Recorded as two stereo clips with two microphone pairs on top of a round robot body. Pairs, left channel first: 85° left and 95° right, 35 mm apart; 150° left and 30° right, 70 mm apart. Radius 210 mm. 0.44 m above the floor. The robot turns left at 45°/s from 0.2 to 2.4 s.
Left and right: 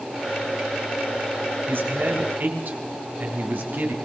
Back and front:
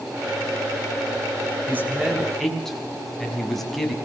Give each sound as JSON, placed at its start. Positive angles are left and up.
{"t": 1.7, "sound": "a man speaking", "azimuth_deg": -90, "distance_m": 5.5}